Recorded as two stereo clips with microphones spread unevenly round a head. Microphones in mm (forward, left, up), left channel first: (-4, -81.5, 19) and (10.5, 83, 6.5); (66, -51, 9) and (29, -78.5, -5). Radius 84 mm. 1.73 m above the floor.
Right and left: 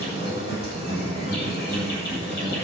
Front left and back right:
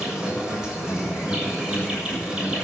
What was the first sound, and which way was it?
An insect, 65° right.